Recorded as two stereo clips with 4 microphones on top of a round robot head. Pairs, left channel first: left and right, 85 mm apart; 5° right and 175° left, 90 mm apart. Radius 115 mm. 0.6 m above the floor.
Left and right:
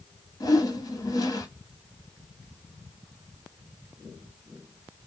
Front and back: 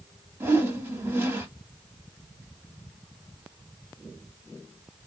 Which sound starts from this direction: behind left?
A whoosh, at 0.4 s.